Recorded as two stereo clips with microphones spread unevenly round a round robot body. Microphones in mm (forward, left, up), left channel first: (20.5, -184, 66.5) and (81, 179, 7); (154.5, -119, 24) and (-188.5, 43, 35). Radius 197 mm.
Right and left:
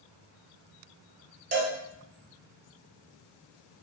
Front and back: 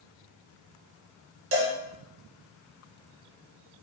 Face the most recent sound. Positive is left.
turn(degrees=120)